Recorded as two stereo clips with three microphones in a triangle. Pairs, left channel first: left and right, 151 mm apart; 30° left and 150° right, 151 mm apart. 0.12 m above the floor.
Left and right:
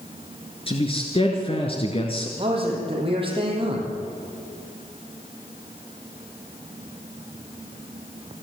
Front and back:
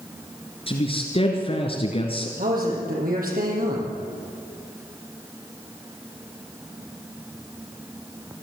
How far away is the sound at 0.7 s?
About 2.5 m.